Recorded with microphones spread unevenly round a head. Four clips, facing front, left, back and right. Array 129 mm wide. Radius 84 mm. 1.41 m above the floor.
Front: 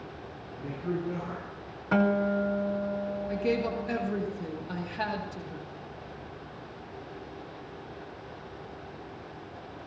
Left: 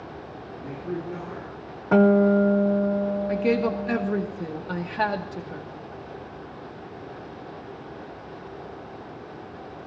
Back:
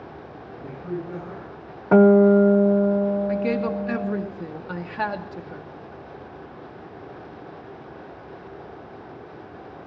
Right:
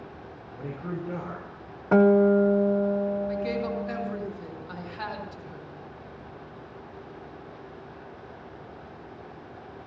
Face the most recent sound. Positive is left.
turn(degrees=125)